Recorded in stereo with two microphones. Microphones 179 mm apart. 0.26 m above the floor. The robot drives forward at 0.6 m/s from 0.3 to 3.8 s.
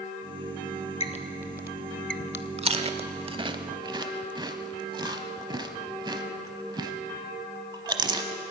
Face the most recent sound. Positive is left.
turn(degrees=-25)  # may be behind; listen again after turning